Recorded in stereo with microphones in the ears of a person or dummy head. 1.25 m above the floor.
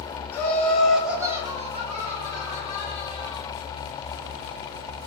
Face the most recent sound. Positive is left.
turn(degrees=-30)  # may be behind; listen again after turning